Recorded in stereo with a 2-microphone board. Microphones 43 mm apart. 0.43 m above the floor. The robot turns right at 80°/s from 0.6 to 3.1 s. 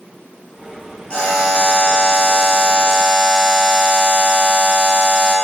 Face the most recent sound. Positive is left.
turn(degrees=180)